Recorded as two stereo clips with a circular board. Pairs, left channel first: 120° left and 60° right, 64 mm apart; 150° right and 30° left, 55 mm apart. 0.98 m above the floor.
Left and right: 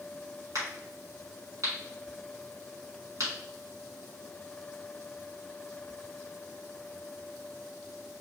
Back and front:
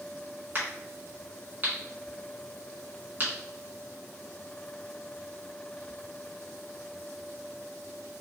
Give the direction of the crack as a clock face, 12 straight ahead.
1 o'clock.